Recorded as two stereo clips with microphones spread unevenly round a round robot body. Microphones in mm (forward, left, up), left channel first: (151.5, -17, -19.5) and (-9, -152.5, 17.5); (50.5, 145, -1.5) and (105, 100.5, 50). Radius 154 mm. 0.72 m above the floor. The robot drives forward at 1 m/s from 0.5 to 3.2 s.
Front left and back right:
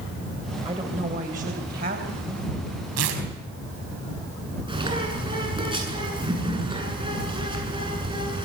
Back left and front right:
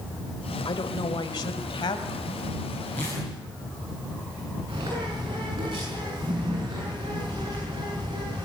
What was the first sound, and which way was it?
A woman speaking, 145° left.